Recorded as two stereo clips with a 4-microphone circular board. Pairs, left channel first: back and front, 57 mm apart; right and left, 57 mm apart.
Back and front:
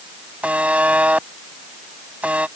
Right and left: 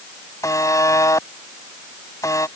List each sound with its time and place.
0.4 s a buzzer: 65° right